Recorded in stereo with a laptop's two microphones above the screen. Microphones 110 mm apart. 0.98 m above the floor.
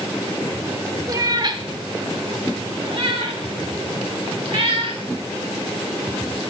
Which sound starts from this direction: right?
A cat meowing, at 1.1 s.